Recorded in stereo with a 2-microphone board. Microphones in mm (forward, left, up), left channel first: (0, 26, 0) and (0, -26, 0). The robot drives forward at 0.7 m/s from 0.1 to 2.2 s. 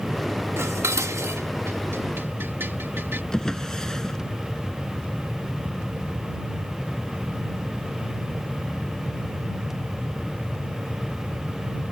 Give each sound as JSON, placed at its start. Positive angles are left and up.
{"t": 0.6, "sound": "dishes clattering", "side_deg": -65}
{"t": 3.3, "sound": "a drawer", "side_deg": 15}